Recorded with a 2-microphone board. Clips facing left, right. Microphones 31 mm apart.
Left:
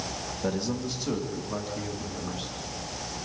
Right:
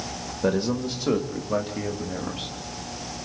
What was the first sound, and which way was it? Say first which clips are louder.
A man speaking: right 6 dB; 40° right (ahead or behind).